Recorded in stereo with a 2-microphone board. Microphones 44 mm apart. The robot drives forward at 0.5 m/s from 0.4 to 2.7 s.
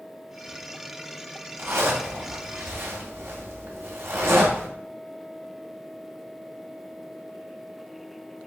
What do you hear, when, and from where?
1.6 s a zipper: 80° right, 2 m